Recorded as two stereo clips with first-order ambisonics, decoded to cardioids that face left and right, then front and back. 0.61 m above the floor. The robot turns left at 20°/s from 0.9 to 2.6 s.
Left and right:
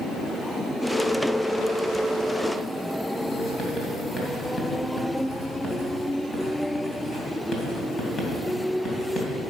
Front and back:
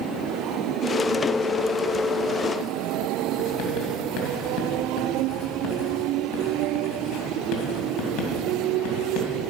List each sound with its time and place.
3.4 s writing: 20° left, 2.5 m